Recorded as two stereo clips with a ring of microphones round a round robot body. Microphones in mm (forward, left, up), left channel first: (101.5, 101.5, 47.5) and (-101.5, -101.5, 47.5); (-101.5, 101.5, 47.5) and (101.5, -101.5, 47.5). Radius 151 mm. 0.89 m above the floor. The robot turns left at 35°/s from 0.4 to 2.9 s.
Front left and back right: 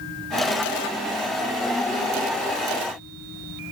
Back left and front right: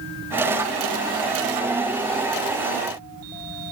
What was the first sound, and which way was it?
Only background noise.